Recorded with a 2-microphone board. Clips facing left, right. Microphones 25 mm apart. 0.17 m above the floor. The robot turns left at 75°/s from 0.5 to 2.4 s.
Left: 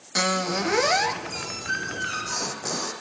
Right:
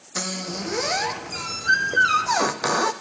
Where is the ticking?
I don't hear ticking.